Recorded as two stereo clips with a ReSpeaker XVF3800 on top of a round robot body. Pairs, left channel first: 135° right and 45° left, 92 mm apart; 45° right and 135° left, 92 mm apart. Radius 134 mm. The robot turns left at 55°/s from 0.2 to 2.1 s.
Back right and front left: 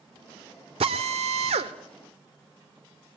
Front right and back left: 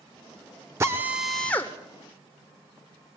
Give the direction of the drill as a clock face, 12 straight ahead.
10 o'clock.